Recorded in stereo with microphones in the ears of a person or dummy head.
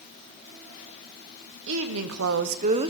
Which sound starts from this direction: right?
A woman speaking, at 1.7 s.